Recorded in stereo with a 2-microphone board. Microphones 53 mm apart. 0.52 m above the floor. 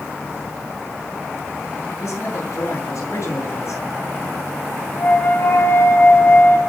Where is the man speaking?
60° left (ahead or behind), 8 m.